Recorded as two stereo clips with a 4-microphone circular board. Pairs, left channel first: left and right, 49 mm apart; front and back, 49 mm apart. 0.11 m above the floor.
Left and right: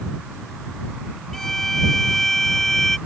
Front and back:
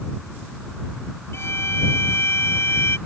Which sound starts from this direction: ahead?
A violin, at 1.3 s.